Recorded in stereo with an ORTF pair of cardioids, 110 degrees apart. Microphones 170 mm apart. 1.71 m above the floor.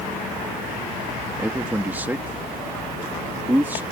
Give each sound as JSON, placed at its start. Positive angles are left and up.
{"t": 1.4, "sound": "a man speaking", "azimuth_deg": -10}